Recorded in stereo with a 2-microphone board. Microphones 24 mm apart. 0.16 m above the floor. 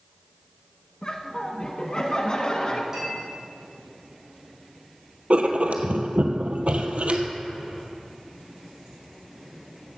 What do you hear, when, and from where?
1.0 s laughter: 35° left (ahead or behind), 1.1 m
2.9 s a clink: 20° right (ahead or behind), 4.5 m
5.3 s writing: 65° right (ahead or behind), 1.0 m